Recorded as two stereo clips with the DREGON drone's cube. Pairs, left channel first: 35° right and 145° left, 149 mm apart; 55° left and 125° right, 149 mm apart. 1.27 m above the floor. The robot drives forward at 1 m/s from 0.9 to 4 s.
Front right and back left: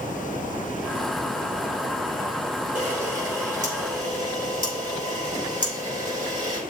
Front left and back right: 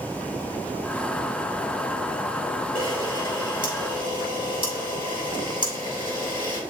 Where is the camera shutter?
Straight behind, 3.5 m.